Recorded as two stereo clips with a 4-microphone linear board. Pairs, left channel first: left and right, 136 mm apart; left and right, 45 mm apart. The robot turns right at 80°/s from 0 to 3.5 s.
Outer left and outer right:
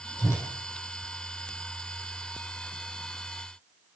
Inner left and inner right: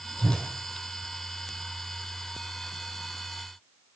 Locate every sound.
0.2 s a whoosh: 30° left (ahead or behind), 4 m; by 0.5 s 10° left (ahead or behind), 4 m